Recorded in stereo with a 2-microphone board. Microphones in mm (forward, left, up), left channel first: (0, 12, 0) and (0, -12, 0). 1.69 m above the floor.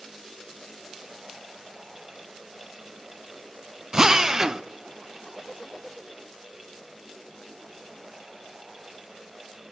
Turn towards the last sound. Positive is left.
turn(degrees=-25)  # may be behind; listen again after turning